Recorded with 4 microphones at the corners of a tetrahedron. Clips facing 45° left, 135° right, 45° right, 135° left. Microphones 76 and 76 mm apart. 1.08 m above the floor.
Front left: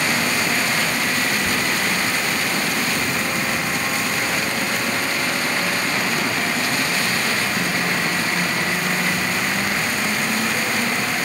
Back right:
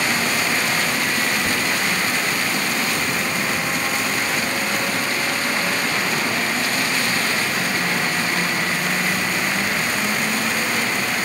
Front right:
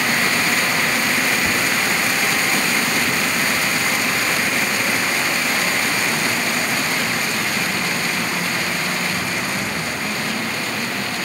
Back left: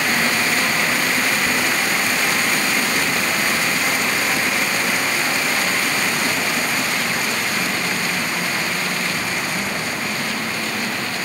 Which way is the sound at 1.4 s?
85° right.